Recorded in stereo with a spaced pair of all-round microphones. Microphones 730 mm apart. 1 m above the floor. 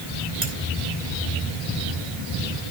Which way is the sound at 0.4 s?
90° right.